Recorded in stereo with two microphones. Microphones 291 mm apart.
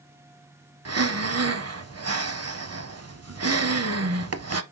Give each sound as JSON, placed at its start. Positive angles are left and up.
{"t": 0.8, "sound": "breathing", "side_deg": -60, "distance_m": 0.6}